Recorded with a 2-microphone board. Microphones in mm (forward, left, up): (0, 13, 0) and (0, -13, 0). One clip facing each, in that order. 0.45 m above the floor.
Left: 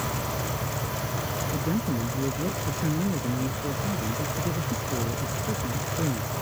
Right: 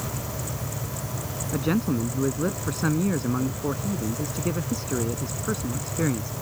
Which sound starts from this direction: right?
A man speaking, at 1.5 s.